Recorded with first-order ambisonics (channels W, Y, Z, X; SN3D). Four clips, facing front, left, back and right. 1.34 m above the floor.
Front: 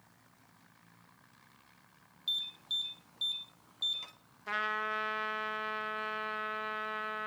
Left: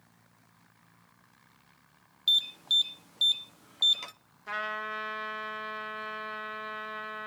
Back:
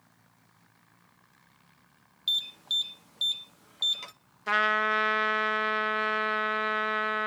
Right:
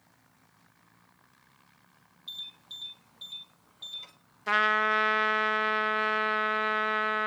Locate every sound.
2.3 s an alarm: 120° left, 0.9 m
4.5 s a trumpet: 130° right, 0.6 m